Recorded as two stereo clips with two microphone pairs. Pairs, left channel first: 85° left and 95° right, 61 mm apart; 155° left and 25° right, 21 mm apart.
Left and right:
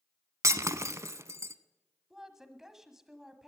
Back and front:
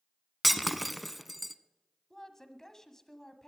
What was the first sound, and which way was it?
Breaking glass, 110° right.